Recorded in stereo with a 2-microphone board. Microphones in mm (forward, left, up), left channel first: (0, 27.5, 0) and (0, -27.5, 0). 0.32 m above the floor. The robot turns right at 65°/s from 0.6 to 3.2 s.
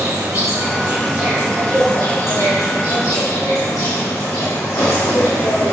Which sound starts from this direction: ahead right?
An insect, at 0.0 s.